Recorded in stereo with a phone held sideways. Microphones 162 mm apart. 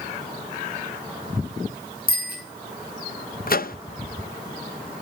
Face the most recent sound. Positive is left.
turn(degrees=65)  # may be behind; listen again after turning